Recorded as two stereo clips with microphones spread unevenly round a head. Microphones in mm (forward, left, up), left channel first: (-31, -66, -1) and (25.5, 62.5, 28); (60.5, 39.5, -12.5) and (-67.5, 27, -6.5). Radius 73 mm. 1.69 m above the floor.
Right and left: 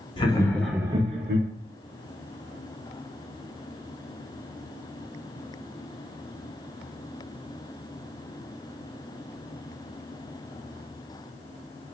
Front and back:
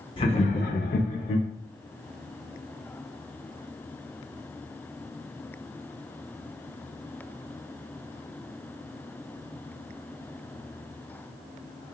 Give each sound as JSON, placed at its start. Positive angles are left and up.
{"t": 0.2, "sound": "laughter", "azimuth_deg": -50, "distance_m": 1.0}